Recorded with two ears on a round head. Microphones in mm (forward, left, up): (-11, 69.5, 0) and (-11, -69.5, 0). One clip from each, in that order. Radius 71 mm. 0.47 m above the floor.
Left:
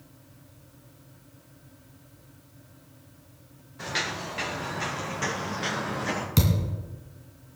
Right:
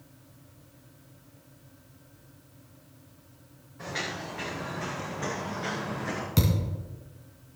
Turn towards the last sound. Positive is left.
turn(degrees=15)  # may be behind; listen again after turning